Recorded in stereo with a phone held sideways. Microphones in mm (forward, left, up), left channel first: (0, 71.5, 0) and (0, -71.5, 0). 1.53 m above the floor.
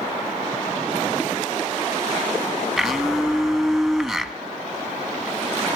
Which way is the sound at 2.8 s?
Centre (ahead or behind).